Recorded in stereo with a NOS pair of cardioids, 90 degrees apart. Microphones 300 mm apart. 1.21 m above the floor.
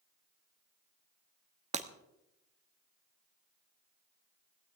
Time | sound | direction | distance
1.7 | breaking glass | 25° right | 1.3 m